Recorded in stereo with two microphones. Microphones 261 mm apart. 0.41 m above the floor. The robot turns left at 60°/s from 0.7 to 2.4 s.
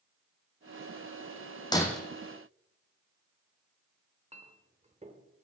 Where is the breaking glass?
15° left (ahead or behind), 1.3 m; by 2.0 s centre (ahead or behind), 1.3 m.